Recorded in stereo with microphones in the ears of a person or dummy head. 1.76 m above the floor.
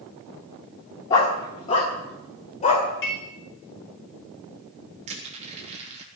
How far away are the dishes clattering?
About 5 m.